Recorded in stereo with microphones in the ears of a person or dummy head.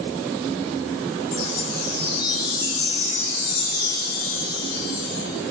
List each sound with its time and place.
1.3 s a chime: 85° left, 6.5 m